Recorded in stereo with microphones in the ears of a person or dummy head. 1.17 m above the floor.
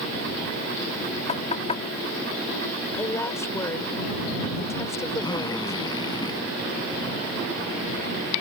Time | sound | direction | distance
1.3 | knocking | 35° left (ahead or behind) | ?
2.9 | a woman speaking | 20° left (ahead or behind) | ?
5.2 | a drill | 25° left (ahead or behind) | ?